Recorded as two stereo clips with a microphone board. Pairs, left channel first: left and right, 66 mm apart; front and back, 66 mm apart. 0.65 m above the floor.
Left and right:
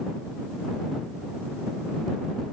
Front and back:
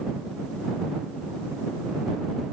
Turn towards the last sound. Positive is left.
No sound to turn to.